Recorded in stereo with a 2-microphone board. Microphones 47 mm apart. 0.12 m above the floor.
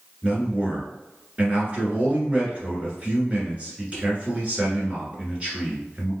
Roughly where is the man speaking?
Right.